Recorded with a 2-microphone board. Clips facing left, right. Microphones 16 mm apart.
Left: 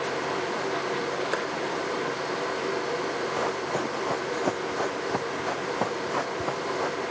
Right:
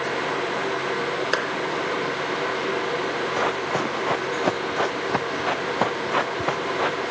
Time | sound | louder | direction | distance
1.3 | a clap | right 5 dB | 60° right (ahead or behind) | ?
3.4 | running footsteps | right 4 dB | 50° right (ahead or behind) | ?